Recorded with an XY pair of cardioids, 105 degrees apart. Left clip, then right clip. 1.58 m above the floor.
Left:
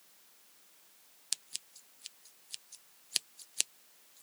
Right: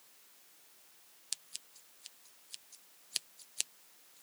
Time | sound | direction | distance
1.3 | scissors | 30° left | ?